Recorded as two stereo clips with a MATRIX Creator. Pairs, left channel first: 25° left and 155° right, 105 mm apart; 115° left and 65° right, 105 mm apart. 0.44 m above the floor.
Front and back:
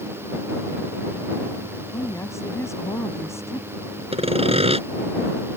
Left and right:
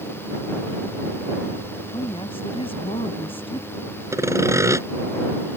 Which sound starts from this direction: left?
A woman speaking, at 1.9 s.